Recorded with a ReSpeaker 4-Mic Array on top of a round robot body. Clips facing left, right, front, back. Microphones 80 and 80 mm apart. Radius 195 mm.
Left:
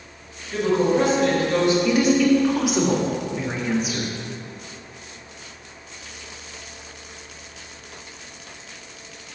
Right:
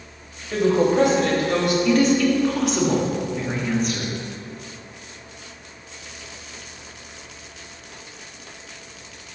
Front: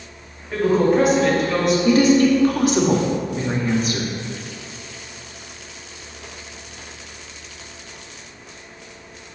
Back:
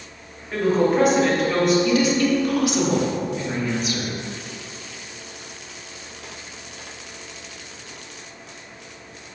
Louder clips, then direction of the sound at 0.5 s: Right 2 dB, front 2 dB; 90° right.